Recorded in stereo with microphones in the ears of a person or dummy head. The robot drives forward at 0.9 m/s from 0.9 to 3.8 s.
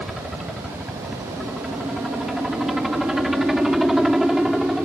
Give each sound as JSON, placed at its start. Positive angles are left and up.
{"t": 0.0, "sound": "a helicopter", "side_deg": 0}